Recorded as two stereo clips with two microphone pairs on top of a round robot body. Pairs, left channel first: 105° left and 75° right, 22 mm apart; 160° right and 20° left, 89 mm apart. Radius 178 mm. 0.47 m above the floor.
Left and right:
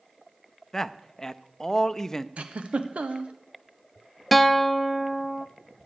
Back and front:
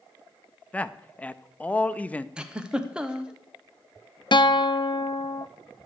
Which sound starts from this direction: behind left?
A man speaking, at 0.7 s.